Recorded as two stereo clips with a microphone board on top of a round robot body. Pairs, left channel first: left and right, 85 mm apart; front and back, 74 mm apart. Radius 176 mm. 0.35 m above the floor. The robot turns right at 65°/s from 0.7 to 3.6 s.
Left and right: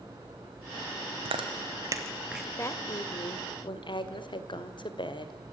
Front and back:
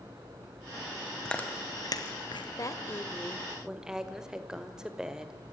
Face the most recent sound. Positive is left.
turn(degrees=100)